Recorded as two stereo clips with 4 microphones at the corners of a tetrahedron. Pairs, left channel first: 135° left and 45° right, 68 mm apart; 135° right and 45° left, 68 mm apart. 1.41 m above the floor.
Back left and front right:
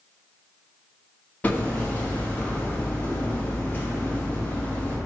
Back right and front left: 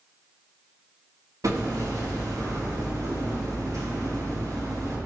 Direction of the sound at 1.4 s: 70° left.